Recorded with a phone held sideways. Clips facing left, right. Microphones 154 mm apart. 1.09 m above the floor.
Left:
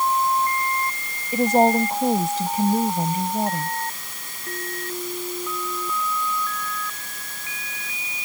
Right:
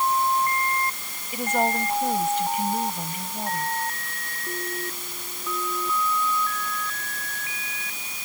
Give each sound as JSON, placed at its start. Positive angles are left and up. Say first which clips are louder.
{"t": 1.3, "sound": "a woman speaking", "louder": "left 8 dB", "side_deg": 40}